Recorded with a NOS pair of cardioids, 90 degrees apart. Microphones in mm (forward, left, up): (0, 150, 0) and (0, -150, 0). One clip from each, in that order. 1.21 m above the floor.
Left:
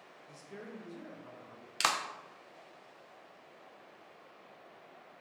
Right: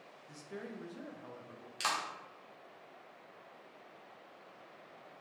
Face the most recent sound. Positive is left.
turn(degrees=40)